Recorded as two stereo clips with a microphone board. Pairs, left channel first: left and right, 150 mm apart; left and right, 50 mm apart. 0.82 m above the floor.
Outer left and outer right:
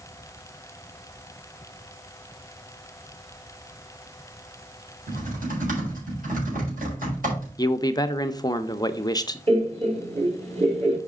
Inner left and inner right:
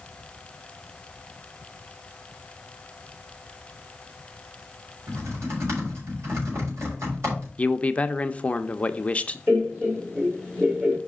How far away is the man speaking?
About 0.6 m.